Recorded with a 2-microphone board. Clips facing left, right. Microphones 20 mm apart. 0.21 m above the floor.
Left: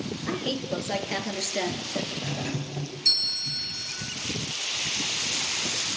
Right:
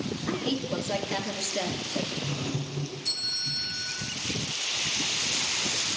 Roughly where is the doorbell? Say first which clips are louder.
Left 1 dB; left.